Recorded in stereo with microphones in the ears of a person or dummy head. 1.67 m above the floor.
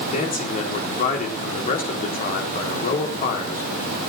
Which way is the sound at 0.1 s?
40° left (ahead or behind).